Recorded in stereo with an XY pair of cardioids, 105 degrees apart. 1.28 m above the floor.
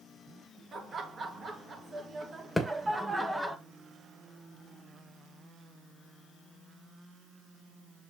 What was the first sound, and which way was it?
Laughter, 50° right.